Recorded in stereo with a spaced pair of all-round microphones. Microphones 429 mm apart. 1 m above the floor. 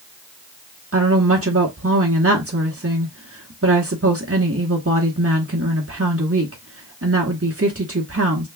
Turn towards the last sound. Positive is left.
turn(degrees=-30)  # may be behind; listen again after turning